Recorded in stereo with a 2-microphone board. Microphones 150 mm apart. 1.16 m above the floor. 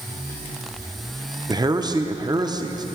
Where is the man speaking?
25° right (ahead or behind), 0.6 m.